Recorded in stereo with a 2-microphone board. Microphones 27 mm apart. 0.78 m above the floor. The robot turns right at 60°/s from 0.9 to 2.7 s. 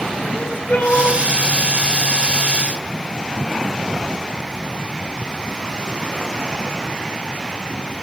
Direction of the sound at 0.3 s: 80° left.